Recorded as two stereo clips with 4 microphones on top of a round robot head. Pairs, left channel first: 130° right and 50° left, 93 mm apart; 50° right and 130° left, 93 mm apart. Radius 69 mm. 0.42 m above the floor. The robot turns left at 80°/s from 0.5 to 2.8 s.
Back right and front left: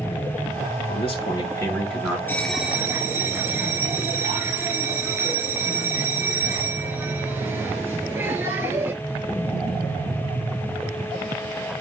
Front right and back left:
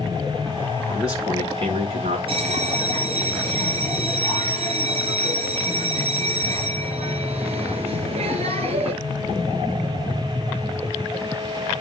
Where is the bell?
155° left, 3.5 m; by 8.9 s 115° left, 3.5 m.